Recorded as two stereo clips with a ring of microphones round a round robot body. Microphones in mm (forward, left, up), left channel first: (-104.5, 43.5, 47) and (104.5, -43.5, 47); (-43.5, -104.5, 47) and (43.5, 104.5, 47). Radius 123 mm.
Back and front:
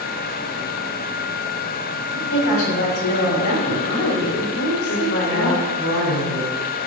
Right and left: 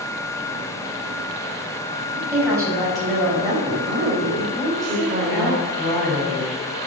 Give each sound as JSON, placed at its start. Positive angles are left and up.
{"t": 2.1, "sound": "a woman speaking", "azimuth_deg": 145, "distance_m": 6.0}
{"t": 4.5, "sound": "a woman speaking", "azimuth_deg": 175, "distance_m": 5.5}